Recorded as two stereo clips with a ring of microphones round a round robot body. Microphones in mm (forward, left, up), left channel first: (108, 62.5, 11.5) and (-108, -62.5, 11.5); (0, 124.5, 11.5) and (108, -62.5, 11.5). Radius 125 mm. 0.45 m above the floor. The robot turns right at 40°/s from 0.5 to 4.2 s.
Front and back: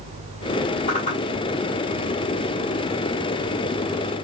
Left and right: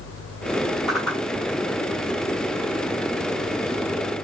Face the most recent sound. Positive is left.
turn(degrees=160)